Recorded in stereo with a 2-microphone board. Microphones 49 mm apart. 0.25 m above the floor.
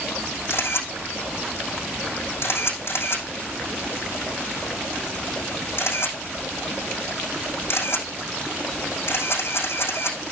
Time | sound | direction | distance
0.5 | a camera shutter | 60° left (ahead or behind) | 8.5 m